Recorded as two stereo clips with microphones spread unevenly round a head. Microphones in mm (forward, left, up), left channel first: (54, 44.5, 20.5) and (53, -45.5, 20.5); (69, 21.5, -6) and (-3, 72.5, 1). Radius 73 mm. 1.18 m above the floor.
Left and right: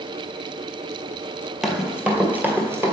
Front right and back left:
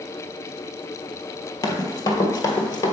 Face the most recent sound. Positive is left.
turn(degrees=-45)